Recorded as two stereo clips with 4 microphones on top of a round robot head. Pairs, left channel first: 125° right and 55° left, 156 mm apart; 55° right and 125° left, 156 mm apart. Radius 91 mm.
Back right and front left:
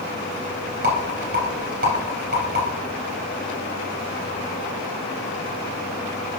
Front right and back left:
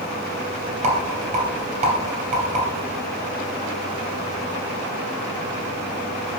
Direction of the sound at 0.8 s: 80° left.